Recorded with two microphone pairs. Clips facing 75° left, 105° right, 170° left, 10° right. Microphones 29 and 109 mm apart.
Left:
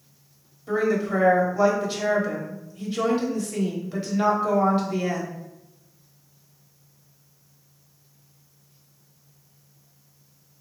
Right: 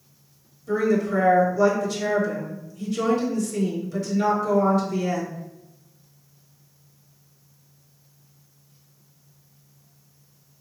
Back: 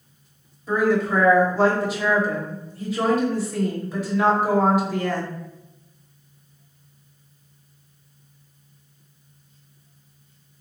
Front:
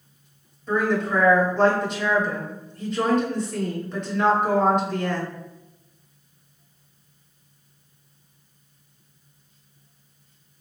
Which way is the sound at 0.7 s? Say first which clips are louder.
Right 1 dB, back 2 dB; 90° left.